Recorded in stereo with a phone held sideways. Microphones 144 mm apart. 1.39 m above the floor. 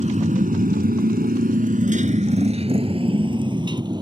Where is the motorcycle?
50° right (ahead or behind); by 4.0 s 25° right (ahead or behind).